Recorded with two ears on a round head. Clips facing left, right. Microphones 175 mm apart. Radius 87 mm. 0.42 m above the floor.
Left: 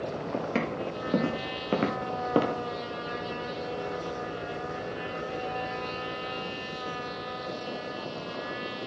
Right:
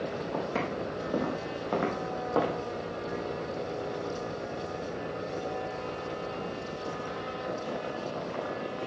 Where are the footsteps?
30° left (ahead or behind), 5.5 m; by 2.6 s 40° left (ahead or behind), 3 m.